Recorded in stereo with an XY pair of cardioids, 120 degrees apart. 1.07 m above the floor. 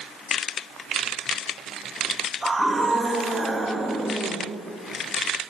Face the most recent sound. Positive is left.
turn(degrees=-5)